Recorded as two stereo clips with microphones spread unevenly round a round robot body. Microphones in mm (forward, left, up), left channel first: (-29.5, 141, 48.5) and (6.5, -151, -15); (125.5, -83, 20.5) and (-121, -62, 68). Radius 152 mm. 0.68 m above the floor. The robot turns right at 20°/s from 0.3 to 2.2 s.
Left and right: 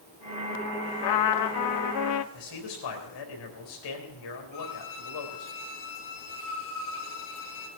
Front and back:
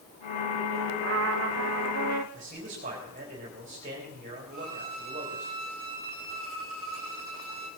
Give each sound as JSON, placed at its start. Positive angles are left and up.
{"t": 1.0, "sound": "a trumpet", "azimuth_deg": 115, "distance_m": 0.6}
{"t": 2.3, "sound": "a man speaking", "azimuth_deg": 110, "distance_m": 4.0}
{"t": 4.5, "sound": "a violin", "azimuth_deg": 65, "distance_m": 3.5}